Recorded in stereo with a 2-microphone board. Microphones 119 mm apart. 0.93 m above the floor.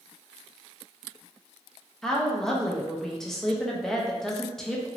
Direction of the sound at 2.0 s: 5° left (ahead or behind).